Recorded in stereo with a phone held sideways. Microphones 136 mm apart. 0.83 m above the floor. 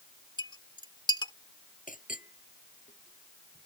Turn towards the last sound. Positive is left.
turn(degrees=80)